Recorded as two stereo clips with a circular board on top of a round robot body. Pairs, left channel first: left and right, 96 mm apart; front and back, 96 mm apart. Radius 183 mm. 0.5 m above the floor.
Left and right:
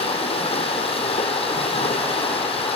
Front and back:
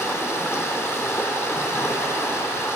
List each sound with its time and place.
0.0 s running water: 65° left, 3.5 m